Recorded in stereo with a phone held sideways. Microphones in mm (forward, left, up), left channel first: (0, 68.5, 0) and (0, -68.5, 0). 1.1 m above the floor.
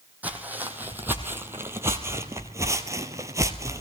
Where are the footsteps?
10° right (ahead or behind), 2.0 m; by 3.8 s 20° right (ahead or behind), 1.2 m.